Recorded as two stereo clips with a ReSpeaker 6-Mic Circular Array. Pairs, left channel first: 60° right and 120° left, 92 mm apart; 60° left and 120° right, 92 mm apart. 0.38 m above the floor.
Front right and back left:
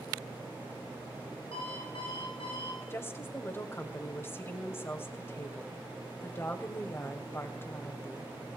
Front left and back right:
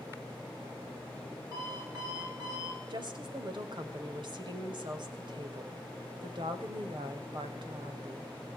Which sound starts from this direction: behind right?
A woman speaking, at 2.9 s.